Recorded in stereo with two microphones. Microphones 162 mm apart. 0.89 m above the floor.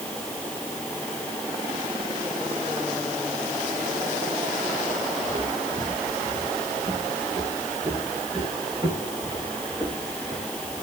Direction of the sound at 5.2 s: 40° right (ahead or behind).